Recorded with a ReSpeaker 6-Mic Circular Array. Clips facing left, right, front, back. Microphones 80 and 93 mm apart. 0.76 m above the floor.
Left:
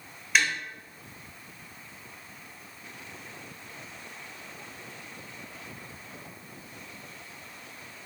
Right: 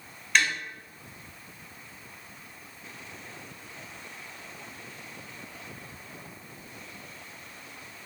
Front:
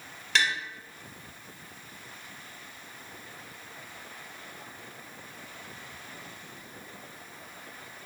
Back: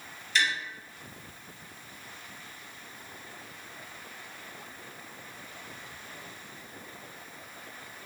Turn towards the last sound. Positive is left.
turn(degrees=5)